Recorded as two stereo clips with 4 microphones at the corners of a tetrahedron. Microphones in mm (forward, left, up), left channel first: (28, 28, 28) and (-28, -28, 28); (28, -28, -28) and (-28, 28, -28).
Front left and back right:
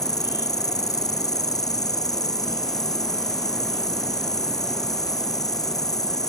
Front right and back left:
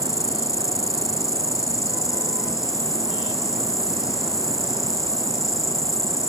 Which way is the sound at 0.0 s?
5° left.